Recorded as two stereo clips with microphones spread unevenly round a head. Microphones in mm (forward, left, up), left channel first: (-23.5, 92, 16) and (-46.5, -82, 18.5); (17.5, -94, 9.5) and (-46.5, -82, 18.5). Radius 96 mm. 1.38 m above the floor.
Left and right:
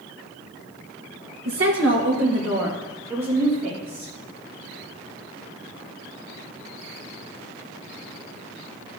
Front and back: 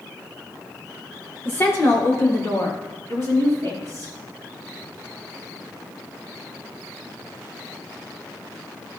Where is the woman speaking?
70° right, 1.0 m; by 4.1 s 45° right, 4 m.